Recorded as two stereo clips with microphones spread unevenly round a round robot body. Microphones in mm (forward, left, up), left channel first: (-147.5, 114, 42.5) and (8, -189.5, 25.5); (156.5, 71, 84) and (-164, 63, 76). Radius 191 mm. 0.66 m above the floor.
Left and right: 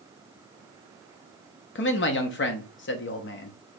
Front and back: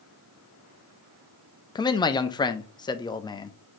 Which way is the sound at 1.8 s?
75° left.